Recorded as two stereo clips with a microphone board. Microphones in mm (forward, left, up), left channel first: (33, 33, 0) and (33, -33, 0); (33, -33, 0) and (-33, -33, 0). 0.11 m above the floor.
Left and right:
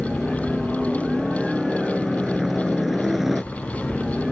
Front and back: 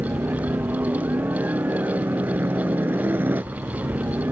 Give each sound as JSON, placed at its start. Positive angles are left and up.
{"t": 0.0, "sound": "a helicopter", "azimuth_deg": -175}